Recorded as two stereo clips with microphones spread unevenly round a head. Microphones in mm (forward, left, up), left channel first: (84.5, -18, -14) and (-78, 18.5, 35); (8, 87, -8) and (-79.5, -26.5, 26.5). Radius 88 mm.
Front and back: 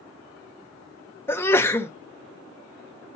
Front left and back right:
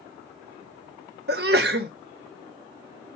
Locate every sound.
1.3 s a sneeze: 90° right, 1.0 m